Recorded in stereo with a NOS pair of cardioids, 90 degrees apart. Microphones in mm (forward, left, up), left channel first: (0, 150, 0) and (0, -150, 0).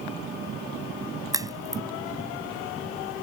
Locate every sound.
1.3 s a crack: 10° right